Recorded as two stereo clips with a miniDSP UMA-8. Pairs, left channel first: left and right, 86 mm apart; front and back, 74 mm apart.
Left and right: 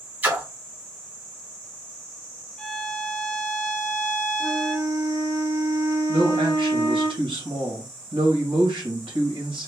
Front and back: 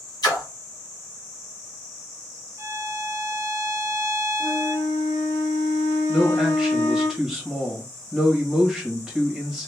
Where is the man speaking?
95° right, 1.7 m.